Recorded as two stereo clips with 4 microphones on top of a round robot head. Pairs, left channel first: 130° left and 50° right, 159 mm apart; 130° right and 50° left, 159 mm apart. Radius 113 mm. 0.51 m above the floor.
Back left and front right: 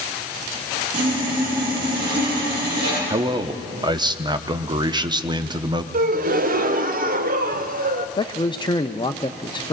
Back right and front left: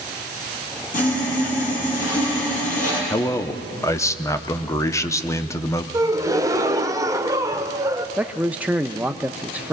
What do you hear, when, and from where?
0.9 s sawing: 90° right, 6.5 m
3.1 s a man speaking: 75° right, 1.0 m
5.9 s a gasp: 20° right, 0.9 m
8.2 s a man speaking: 120° left, 0.7 m